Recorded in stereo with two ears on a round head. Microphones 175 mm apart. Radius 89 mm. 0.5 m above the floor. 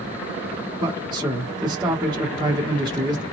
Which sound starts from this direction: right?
A man speaking, at 0.8 s.